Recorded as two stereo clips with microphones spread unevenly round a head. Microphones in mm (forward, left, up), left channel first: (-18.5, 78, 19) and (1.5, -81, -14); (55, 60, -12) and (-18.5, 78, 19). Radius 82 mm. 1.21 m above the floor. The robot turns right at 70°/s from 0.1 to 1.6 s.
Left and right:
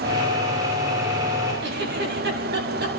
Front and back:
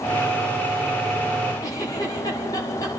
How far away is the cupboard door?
No cupboard door in this recording.